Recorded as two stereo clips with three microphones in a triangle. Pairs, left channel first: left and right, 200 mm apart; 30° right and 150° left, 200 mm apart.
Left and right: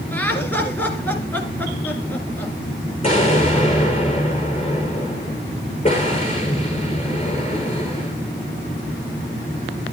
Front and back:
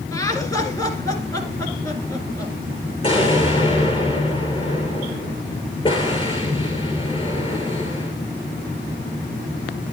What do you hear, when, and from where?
0.1 s laughter: 20° left, 1.8 m
3.0 s an explosion: 30° left, 6.5 m